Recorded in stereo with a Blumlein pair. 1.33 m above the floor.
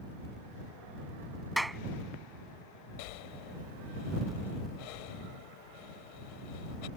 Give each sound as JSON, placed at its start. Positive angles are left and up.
{"t": 1.6, "sound": "a clap", "azimuth_deg": -5}
{"t": 3.0, "sound": "breathing", "azimuth_deg": 45}